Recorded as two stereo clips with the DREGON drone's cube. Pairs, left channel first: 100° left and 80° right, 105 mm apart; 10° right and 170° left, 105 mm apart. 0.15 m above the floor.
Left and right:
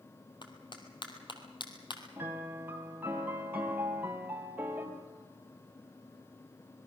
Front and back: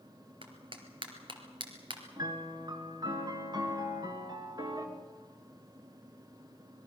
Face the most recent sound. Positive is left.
turn(degrees=-145)